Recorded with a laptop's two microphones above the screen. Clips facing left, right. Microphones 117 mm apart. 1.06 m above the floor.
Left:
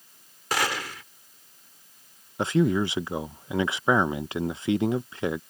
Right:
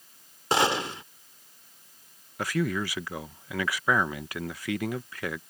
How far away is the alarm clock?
No alarm clock in this recording.